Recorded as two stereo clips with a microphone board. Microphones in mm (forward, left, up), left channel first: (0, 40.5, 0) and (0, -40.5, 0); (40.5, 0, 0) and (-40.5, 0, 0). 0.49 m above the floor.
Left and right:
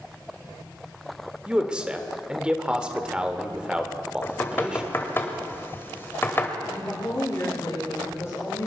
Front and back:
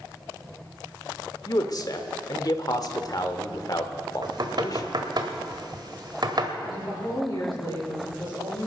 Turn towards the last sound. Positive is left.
turn(degrees=35)